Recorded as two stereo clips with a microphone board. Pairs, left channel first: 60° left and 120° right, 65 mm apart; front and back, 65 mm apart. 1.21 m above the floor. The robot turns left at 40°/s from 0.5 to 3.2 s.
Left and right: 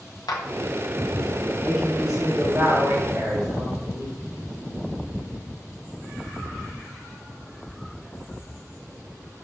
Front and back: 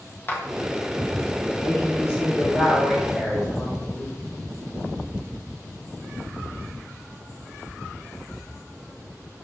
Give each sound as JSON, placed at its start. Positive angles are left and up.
{"t": 0.3, "sound": "a clap", "azimuth_deg": 55, "distance_m": 1.2}
{"t": 1.6, "sound": "a woman speaking", "azimuth_deg": -15, "distance_m": 2.5}